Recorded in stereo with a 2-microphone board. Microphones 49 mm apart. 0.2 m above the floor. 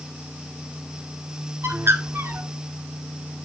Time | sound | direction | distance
1.6 | a bird | 55° right (ahead or behind) | 1.6 m